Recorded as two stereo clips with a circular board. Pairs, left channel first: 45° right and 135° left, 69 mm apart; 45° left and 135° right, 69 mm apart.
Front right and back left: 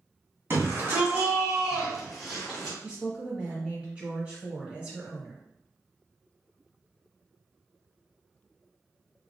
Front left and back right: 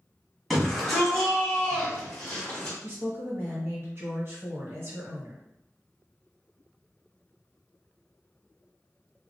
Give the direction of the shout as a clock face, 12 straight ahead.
8 o'clock.